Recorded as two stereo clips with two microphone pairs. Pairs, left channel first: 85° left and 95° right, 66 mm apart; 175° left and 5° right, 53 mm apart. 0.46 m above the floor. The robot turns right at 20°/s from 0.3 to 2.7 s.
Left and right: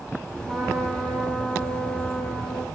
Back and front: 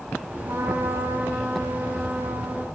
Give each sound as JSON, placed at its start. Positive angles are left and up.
{"t": 0.5, "sound": "a trumpet", "azimuth_deg": 0, "distance_m": 4.5}